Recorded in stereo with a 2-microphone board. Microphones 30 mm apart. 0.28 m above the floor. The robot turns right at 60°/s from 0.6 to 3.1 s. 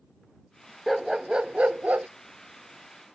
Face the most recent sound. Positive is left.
turn(degrees=-45)